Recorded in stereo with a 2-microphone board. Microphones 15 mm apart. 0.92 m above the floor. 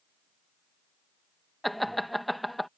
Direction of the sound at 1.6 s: 10° left (ahead or behind).